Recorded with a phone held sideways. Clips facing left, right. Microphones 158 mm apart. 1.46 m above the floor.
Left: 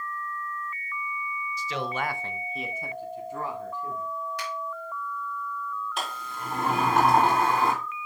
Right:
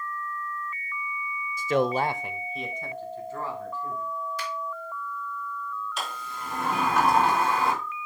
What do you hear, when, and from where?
1.6 s a man speaking: 50° right (ahead or behind), 0.6 m; by 4.1 s 20° left (ahead or behind), 2.5 m
4.4 s a finger snap: 65° left (ahead or behind), 3 m
6.0 s a sliding door: 55° left (ahead or behind), 3 m